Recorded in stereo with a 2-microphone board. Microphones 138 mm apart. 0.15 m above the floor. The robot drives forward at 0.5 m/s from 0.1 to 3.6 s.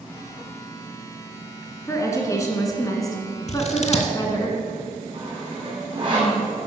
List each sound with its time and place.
1.9 s a woman speaking: 20° left (ahead or behind), 1.7 m; by 4.5 s 25° left (ahead or behind), 1.4 m
3.5 s scissors: 55° left (ahead or behind), 0.9 m
5.1 s sawing: 35° right (ahead or behind), 3 m